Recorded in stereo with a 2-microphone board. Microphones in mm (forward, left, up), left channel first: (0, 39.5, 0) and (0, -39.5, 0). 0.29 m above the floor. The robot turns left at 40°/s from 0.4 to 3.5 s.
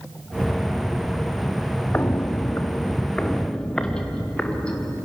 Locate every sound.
1.9 s footsteps: 20° left (ahead or behind), 0.7 m; by 4.9 s 15° left (ahead or behind), 4 m